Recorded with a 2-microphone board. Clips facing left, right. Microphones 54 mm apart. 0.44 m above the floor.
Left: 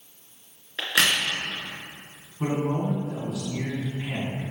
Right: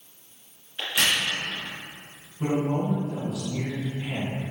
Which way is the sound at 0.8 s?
85° left.